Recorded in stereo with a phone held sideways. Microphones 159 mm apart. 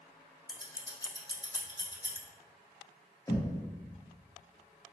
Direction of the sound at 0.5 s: 25° left (ahead or behind).